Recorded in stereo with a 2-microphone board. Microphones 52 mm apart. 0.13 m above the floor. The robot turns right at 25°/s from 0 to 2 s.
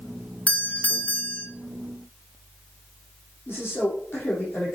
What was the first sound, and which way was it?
A doorbell, 30° left (ahead or behind).